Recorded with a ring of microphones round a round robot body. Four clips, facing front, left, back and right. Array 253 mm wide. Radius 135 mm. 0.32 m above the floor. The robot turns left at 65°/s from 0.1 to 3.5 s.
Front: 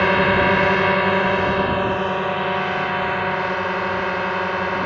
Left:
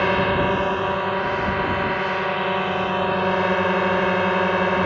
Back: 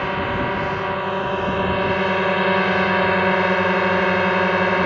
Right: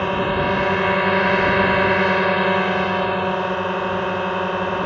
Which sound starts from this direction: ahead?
A drone, at 0.0 s.